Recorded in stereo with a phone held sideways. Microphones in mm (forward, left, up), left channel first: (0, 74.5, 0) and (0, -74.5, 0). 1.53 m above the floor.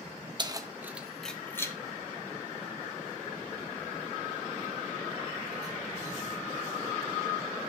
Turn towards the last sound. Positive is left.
turn(degrees=60)  # may be behind; listen again after turning